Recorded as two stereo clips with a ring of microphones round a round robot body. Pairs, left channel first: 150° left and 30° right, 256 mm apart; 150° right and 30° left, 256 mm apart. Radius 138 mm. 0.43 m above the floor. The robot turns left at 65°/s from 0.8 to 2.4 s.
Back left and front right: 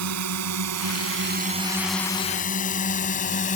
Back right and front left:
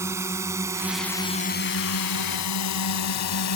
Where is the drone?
50° right; by 3.6 s 150° right.